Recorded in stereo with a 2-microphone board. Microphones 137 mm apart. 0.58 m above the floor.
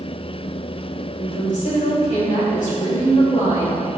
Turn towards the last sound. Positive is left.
turn(degrees=65)  # may be behind; listen again after turning